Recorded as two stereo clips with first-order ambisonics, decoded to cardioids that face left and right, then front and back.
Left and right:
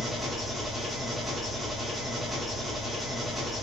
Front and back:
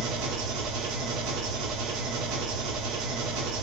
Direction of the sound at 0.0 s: 175° right.